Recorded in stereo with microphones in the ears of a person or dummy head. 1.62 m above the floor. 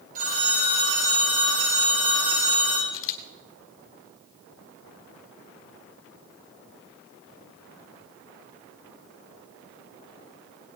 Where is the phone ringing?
45° right (ahead or behind), 6 m.